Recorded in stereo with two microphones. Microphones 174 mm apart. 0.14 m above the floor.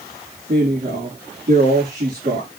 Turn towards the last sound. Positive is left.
turn(degrees=-65)  # may be behind; listen again after turning